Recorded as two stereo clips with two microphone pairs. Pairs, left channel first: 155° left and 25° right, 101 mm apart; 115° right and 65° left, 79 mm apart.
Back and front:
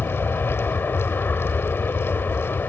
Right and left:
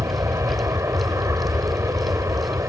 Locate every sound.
0.0 s an aircraft: 90° left